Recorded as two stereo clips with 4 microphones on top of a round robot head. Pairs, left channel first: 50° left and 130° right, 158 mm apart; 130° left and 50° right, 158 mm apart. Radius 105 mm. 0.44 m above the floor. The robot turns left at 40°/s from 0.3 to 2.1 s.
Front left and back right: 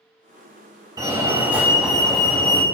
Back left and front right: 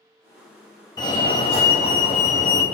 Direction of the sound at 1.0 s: Straight behind.